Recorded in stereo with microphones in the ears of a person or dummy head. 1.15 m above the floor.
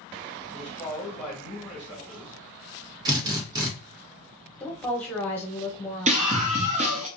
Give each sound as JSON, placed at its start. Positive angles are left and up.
{"t": 0.4, "sound": "a man speaking", "side_deg": 5, "distance_m": 1.0}
{"t": 3.0, "sound": "a drill", "side_deg": -20, "distance_m": 0.9}
{"t": 4.6, "sound": "a woman speaking", "side_deg": 10, "distance_m": 0.8}
{"t": 6.1, "sound": "a scream", "side_deg": -30, "distance_m": 0.5}